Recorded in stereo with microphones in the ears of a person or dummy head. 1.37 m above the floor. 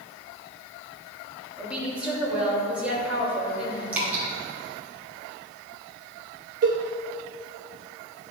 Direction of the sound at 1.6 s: 10° right (ahead or behind).